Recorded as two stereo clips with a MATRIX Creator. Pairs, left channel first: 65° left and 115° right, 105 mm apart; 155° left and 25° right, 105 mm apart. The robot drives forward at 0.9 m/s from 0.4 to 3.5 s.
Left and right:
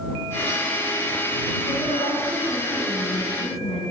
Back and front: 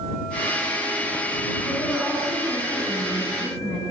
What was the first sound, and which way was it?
A woman speaking, 60° left.